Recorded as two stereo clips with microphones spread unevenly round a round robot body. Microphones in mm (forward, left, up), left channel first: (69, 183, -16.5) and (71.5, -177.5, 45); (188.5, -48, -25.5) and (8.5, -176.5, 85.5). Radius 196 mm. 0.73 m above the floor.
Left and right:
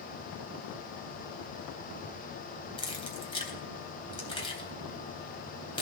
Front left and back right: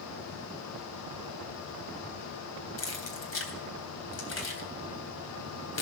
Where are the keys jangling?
15° left, 3 m.